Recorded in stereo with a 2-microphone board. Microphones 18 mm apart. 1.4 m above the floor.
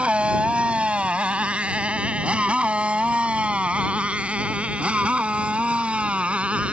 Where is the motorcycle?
80° right; by 6.7 s 85° right.